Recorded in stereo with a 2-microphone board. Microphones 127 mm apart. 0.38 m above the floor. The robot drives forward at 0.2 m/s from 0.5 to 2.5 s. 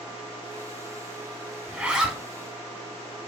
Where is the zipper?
5° right (ahead or behind), 0.6 m; by 2.2 s 10° right (ahead or behind), 0.5 m.